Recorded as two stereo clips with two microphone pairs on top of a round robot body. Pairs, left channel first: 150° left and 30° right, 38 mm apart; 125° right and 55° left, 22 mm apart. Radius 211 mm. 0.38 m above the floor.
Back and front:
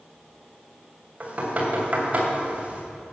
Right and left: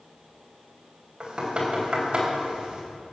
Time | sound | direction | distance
1.2 | knocking | 20° left | 3.5 m